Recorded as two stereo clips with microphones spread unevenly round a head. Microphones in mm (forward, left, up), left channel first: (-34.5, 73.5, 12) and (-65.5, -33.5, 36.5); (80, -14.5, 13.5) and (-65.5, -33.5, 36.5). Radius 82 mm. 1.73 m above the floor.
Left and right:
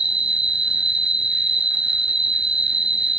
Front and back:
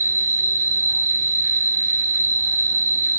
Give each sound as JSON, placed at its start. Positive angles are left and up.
{"t": 0.0, "sound": "an insect", "azimuth_deg": -140, "distance_m": 1.0}